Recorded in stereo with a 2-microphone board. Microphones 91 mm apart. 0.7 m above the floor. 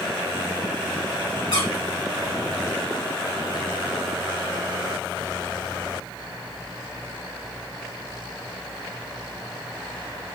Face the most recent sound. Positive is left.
turn(degrees=70)  # may be behind; listen again after turning